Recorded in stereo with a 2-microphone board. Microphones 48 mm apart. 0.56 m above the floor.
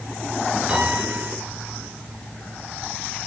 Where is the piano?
20° right (ahead or behind), 2.5 m.